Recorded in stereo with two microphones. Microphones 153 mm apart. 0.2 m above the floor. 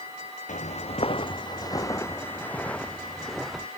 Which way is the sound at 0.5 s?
55° left (ahead or behind).